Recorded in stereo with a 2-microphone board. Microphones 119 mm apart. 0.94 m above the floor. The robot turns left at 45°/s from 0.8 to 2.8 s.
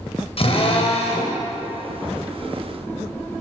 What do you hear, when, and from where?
0.4 s a drill: 55° left (ahead or behind), 4.5 m; by 1.4 s 80° left, 4.5 m